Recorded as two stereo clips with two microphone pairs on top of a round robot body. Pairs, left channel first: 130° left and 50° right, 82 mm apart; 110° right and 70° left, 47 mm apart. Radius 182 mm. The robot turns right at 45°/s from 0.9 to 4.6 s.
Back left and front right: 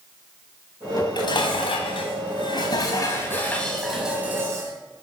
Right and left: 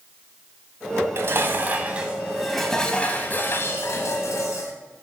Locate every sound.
1.0 s dishes clattering: 90° left, 1.0 m; by 4.7 s 105° right, 1.0 m